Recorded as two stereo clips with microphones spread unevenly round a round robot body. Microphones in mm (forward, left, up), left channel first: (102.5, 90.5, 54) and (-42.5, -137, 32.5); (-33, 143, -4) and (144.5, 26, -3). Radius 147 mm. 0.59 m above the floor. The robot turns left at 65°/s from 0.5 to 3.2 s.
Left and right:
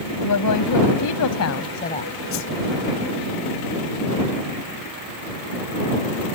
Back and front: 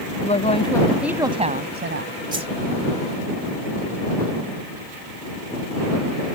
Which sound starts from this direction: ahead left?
A whoosh, at 2.3 s.